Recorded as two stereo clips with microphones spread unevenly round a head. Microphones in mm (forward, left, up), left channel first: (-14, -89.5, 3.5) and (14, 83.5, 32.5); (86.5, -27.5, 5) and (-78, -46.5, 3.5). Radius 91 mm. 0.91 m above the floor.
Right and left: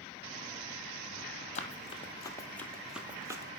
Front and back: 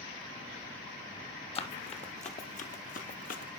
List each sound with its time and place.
1.6 s running footsteps: 45° right, 1.5 m; by 3.6 s 30° left, 1.3 m